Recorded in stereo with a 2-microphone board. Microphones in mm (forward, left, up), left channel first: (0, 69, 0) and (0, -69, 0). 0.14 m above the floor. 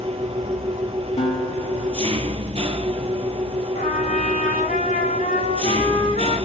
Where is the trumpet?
70° left (ahead or behind), 7 m.